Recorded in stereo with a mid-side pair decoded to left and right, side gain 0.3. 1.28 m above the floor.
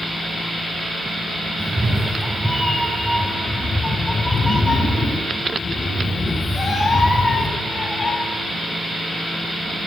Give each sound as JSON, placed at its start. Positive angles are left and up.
{"t": 1.6, "sound": "a cat meowing", "azimuth_deg": -15, "distance_m": 2.5}